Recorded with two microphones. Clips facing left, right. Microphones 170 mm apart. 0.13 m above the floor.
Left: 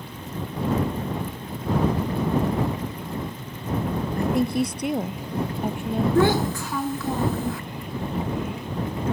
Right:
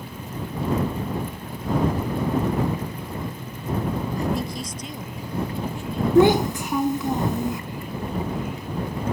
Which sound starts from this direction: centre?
A child speaking, at 6.2 s.